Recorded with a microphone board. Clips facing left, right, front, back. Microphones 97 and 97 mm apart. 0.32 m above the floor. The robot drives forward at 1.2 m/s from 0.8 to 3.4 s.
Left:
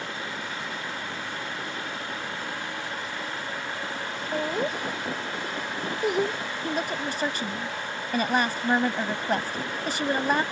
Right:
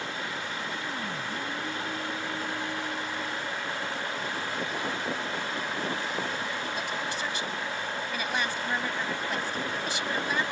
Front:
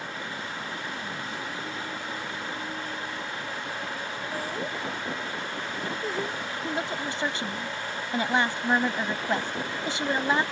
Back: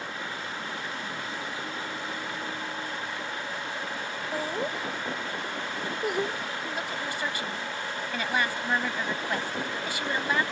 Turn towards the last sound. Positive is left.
turn(degrees=60)